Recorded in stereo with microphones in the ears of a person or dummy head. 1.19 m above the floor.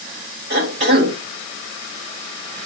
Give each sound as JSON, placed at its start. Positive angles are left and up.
{"t": 0.5, "sound": "a cough", "side_deg": -70, "distance_m": 5.0}